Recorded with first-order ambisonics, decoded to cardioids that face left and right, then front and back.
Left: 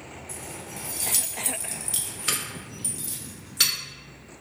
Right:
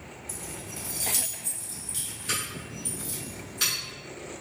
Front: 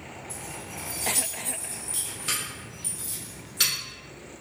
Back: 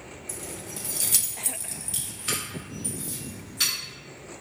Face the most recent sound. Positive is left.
turn(degrees=75)